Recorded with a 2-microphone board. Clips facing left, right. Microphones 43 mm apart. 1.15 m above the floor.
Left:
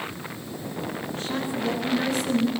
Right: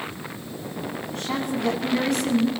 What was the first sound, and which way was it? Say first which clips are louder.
A woman speaking: right 3 dB; 65° right (ahead or behind).